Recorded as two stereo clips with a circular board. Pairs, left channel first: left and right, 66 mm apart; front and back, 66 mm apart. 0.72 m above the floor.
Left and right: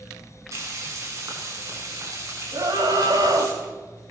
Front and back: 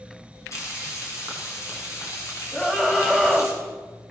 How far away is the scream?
About 4 m.